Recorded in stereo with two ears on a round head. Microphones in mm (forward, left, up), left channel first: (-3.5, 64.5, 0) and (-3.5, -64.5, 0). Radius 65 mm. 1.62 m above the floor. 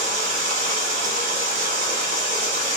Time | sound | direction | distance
0.0 | running water | 55° right (ahead or behind) | 1.2 m